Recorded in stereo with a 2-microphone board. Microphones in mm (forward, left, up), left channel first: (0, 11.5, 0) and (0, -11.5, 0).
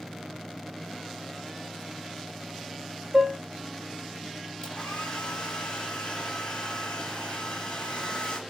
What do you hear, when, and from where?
3.1 s dishes clattering: 25° right (ahead or behind), 1.1 m
4.6 s a hair dryer: 45° left (ahead or behind), 2.0 m